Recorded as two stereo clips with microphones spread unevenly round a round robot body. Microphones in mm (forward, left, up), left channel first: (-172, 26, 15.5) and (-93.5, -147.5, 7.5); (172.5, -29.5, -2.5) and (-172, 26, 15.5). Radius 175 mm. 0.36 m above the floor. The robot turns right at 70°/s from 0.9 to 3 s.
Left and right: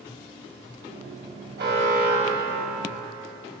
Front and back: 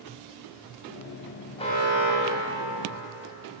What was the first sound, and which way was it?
An alarm, 85° right.